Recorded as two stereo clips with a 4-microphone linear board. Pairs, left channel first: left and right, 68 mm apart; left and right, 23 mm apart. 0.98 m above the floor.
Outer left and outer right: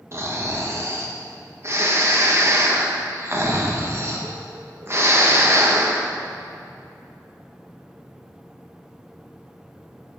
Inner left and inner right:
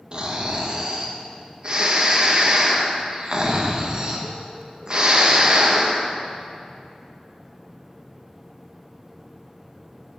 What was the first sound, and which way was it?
Snoring, 40° right (ahead or behind).